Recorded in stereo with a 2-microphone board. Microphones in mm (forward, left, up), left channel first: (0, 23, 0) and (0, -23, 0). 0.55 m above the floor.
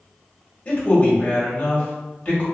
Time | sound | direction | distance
0.7 | a man speaking | 30° left (ahead or behind) | 1.3 m